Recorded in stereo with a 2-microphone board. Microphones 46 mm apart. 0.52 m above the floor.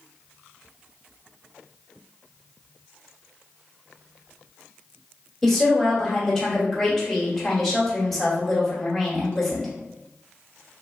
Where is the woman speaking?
5° left (ahead or behind), 1.1 m.